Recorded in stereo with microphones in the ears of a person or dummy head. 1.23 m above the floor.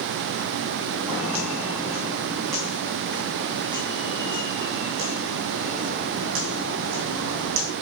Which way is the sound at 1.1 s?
10° right (ahead or behind).